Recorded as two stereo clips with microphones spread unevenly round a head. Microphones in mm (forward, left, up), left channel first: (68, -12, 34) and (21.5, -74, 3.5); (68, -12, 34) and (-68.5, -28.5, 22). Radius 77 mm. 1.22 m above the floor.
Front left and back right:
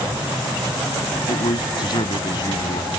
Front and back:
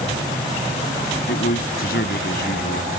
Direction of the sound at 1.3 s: 35° left.